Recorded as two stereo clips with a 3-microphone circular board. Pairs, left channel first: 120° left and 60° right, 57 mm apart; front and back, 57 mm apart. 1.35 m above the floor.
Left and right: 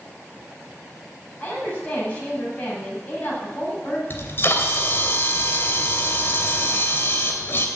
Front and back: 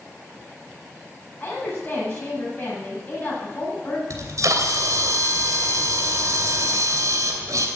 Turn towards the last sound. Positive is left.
turn(degrees=165)